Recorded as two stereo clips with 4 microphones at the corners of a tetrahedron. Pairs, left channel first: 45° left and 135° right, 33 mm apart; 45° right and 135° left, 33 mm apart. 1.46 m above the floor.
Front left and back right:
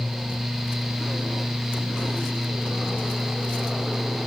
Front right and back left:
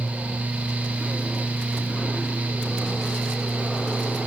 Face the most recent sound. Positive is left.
No sound to turn to.